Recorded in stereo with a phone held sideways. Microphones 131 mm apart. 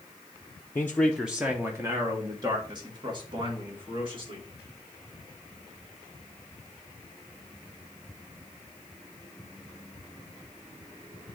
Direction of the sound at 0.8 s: 20° left (ahead or behind).